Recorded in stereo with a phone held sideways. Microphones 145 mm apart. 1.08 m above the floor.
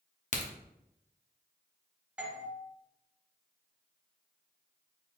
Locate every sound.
0.3 s a crack: 55° left (ahead or behind), 0.8 m
2.2 s a doorbell: 10° right (ahead or behind), 0.9 m